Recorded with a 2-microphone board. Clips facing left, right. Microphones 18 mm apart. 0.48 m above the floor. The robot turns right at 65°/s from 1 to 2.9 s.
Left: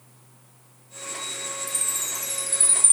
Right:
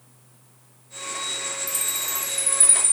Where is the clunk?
I don't hear a clunk.